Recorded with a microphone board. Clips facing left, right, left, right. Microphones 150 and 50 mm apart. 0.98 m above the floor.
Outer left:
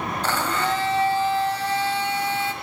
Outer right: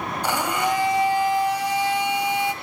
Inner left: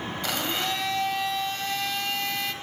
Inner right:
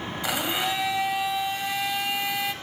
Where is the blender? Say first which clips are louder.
Outer right 2 dB, inner right 2 dB; 15° right (ahead or behind), 1.6 m.